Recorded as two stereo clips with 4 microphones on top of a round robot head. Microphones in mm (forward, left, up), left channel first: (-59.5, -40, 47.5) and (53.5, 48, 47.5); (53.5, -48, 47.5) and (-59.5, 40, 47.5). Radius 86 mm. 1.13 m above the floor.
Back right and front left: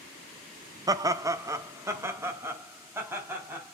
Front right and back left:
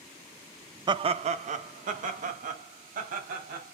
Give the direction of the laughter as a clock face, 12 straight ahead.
9 o'clock.